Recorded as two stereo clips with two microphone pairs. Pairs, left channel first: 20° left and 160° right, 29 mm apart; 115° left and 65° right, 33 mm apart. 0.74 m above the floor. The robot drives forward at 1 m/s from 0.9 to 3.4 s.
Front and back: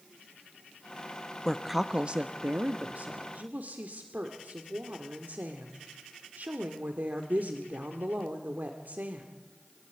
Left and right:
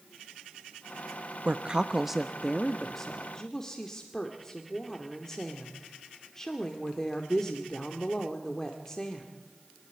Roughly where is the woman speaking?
Ahead right.